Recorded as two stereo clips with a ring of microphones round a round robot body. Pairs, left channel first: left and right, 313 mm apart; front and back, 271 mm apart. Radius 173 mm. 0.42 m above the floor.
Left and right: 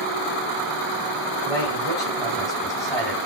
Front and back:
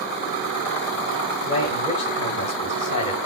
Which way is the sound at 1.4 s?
10° left.